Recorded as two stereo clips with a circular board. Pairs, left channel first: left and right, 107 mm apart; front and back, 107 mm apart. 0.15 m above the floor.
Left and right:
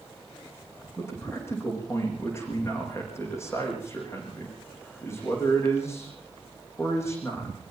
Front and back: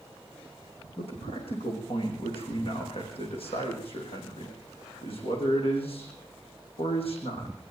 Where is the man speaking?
25° left, 8 m.